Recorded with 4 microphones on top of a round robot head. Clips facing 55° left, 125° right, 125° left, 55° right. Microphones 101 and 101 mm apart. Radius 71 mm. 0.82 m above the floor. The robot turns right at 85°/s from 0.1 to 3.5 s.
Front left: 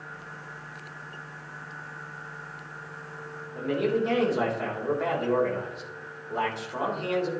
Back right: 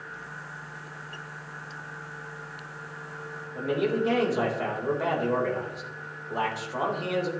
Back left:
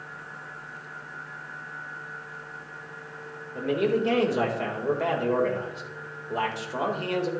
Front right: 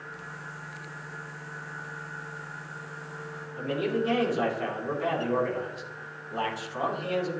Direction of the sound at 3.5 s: 150° left.